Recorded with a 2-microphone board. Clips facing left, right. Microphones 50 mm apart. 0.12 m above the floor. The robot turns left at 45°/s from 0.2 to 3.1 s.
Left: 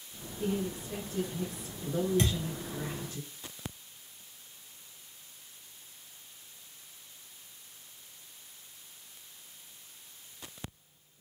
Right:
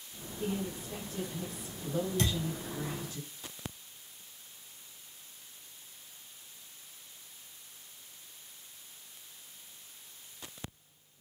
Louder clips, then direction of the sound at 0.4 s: Left 3 dB; 175° left.